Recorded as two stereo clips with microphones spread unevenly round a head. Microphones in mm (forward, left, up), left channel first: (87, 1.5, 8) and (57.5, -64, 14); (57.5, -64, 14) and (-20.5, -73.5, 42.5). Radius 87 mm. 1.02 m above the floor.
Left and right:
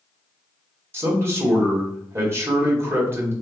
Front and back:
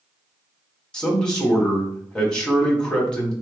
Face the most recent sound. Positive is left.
turn(degrees=-60)